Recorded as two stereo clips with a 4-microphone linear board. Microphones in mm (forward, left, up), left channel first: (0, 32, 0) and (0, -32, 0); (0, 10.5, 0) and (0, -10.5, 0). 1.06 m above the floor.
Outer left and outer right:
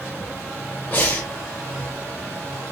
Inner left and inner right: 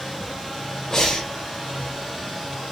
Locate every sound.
0.9 s breathing: 25° left (ahead or behind), 0.9 m